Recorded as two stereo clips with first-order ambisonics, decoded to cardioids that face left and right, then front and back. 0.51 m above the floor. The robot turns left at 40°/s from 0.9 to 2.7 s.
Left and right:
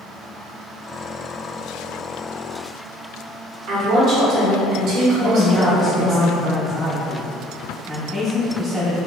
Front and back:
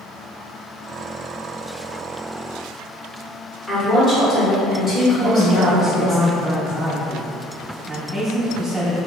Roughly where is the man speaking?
Behind left.